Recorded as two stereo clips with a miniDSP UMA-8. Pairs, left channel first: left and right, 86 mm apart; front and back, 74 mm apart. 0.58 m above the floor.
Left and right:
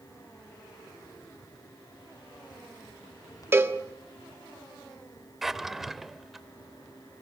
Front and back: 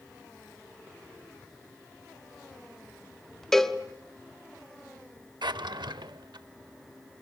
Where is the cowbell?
80° right, 1.0 m.